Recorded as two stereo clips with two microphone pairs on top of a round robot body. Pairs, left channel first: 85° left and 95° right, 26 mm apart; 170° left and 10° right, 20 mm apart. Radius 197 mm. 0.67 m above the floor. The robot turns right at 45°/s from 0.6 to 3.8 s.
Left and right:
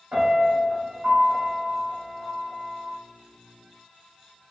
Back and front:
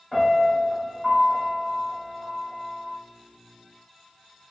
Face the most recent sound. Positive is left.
turn(degrees=40)